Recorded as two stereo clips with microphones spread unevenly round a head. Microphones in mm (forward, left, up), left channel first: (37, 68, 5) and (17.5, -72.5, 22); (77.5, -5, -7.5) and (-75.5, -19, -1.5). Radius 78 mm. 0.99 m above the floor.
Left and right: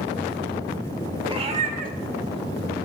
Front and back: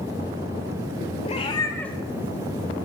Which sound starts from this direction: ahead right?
A cat meowing, at 1.2 s.